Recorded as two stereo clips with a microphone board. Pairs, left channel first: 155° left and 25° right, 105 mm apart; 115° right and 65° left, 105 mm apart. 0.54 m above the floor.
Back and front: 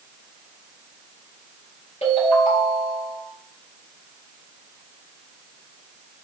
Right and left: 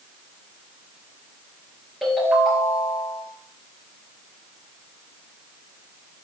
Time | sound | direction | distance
2.0 | a ringtone | 155° left | 4.5 m